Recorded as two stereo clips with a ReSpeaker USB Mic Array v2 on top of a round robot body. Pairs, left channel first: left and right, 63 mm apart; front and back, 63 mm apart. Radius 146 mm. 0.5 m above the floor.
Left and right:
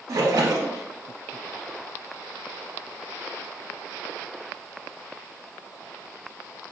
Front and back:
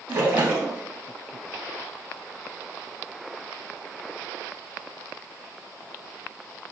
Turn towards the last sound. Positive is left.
turn(degrees=-120)